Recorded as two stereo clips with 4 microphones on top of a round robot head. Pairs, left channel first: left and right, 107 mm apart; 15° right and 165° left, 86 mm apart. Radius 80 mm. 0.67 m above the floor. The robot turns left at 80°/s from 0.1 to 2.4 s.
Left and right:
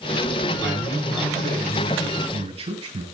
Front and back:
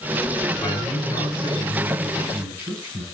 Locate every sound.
0.6 s a man speaking: 25° left, 9 m; by 3.0 s 115° right, 9 m